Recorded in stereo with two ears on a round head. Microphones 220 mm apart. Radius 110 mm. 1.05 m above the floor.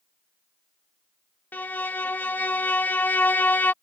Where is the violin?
5° left (ahead or behind).